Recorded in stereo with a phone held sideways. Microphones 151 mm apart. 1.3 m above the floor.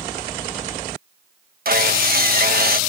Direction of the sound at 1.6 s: 70° right (ahead or behind).